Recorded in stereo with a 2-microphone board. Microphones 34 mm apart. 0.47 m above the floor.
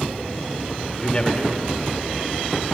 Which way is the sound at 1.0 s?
25° left (ahead or behind).